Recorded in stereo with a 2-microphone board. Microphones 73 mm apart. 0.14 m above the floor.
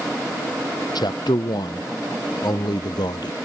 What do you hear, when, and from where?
0.9 s a man speaking: 70° left (ahead or behind)